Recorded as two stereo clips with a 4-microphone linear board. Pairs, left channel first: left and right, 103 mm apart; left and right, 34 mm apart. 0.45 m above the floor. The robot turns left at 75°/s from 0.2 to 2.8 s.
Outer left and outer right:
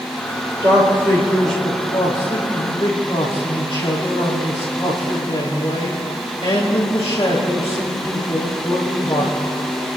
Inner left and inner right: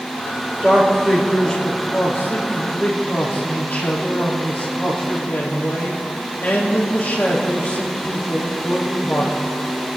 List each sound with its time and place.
0.6 s a man speaking: 125° right, 6 m; by 9.3 s 75° left, 6 m